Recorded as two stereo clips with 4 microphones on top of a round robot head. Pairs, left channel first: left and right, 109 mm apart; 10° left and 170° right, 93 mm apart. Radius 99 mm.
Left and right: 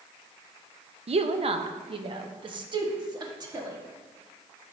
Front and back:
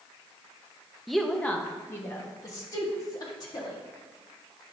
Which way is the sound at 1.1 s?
80° right.